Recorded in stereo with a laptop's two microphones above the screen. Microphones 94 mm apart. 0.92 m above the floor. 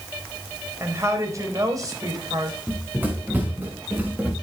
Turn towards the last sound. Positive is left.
turn(degrees=-15)  # may be behind; listen again after turning